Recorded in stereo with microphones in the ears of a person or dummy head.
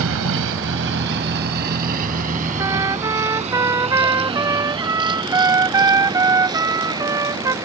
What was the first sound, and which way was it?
A vehicle, 80° right.